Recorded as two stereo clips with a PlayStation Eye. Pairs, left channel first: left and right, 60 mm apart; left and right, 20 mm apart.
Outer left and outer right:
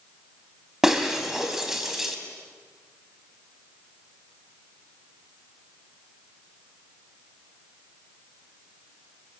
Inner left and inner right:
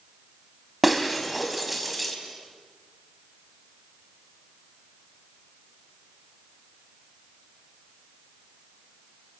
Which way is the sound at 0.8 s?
5° right (ahead or behind).